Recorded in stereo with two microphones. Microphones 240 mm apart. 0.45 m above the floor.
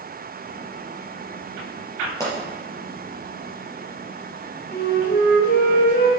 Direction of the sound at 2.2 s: 10° left (ahead or behind).